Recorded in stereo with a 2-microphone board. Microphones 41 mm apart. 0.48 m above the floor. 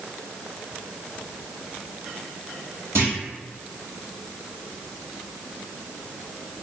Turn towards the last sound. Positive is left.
turn(degrees=-75)  # may be behind; listen again after turning